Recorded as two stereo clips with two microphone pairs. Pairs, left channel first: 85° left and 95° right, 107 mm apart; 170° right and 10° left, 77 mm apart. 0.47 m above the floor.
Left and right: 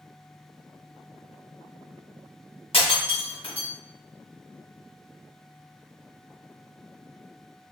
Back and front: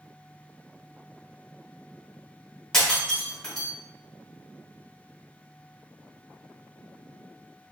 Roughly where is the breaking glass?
Left.